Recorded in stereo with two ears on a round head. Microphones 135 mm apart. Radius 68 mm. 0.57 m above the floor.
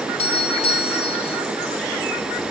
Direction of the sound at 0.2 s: 40° left (ahead or behind).